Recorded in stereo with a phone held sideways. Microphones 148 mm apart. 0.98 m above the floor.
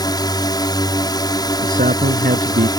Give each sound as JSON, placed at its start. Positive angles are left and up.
{"t": 0.0, "sound": "a drone", "side_deg": 30}
{"t": 1.6, "sound": "a man speaking", "side_deg": -75}